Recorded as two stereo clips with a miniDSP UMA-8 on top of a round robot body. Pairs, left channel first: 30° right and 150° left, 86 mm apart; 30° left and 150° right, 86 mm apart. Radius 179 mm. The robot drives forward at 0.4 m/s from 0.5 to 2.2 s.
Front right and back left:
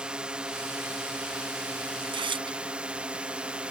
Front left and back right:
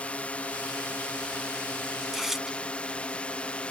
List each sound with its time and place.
0.0 s a drone: 85° left; by 3.7 s 90° left
2.0 s tearing paper: 125° left